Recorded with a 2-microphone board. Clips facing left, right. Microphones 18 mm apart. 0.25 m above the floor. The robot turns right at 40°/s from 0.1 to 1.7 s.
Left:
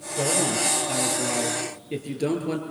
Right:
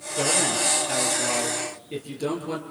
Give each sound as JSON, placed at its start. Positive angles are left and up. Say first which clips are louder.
{"t": 0.2, "sound": "a man speaking", "louder": "right 1 dB", "azimuth_deg": -50, "distance_m": 5.5}